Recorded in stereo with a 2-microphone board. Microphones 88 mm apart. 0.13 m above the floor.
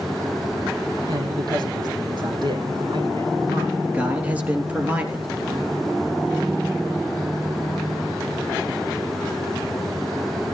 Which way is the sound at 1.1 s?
50° right (ahead or behind).